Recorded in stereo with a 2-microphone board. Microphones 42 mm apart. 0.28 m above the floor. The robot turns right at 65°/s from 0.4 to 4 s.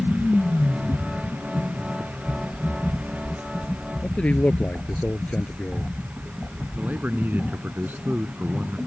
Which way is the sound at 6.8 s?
50° right (ahead or behind).